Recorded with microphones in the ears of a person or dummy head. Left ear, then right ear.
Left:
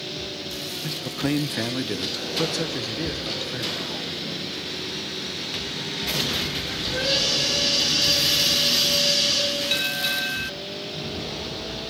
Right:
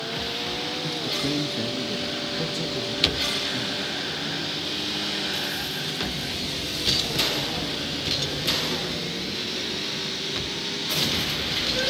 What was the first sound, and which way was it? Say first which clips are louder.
A man speaking: left 1 dB; 15° left (ahead or behind).